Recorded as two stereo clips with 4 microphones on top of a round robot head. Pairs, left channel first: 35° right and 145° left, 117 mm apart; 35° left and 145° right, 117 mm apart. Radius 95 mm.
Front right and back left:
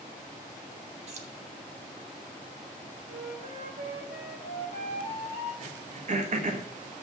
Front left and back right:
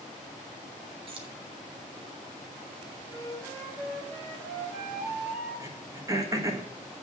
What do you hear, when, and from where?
1.1 s keys jangling: 170° left, 1.6 m
3.1 s a flute: 145° left, 5 m
5.6 s throat clearing: 155° left, 1.6 m